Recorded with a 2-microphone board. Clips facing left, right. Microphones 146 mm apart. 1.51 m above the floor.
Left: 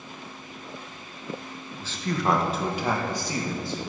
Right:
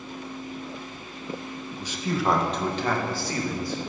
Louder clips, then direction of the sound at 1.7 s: Right 1 dB; 20° right (ahead or behind).